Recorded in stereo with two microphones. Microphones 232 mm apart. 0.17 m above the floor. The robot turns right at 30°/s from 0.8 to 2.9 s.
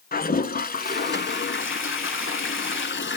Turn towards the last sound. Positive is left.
turn(degrees=110)